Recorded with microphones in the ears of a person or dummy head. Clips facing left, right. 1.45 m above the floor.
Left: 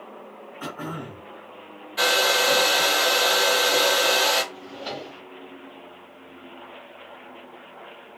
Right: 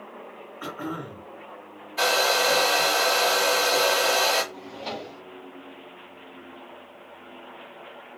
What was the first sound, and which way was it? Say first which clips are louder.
Throat clearing: right 1 dB; 50° left (ahead or behind).